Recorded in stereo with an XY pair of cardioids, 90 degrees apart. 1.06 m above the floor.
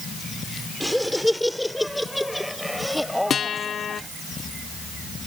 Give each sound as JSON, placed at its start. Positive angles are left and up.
{"t": 0.8, "sound": "laughter", "azimuth_deg": 5}
{"t": 3.3, "sound": "a guitar", "azimuth_deg": 60}